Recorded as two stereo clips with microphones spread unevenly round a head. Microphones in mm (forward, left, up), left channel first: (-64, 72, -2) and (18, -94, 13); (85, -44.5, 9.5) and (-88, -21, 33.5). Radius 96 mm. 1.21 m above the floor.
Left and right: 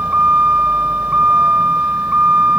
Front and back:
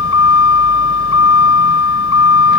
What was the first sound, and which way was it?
A vehicle, 20° left.